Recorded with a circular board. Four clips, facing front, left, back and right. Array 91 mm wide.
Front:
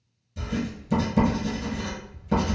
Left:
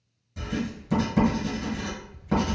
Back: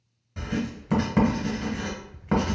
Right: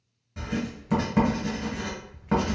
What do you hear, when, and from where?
0.4 s writing: 155° right, 1.2 m